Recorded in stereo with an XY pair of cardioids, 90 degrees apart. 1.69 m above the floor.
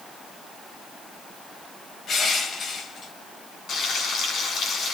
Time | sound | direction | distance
2.1 | crushing | 60° left | 4 m
3.7 | frying | 70° left | 6.5 m